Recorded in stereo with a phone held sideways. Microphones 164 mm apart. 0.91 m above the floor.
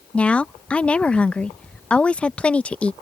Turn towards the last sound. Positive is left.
turn(degrees=5)  # may be behind; listen again after turning